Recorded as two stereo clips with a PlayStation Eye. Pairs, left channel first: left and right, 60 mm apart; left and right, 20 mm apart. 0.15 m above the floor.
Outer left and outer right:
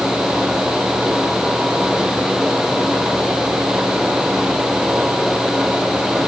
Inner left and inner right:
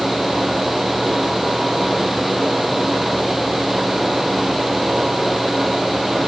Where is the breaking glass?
No breaking glass in this recording.